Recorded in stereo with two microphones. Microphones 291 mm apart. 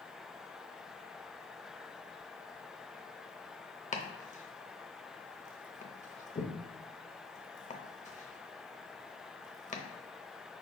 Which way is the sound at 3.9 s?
25° left (ahead or behind).